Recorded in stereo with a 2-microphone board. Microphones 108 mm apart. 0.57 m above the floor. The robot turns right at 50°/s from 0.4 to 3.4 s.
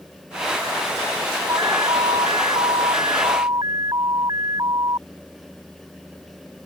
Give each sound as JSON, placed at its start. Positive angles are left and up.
{"t": 1.5, "sound": "an alarm", "azimuth_deg": -135}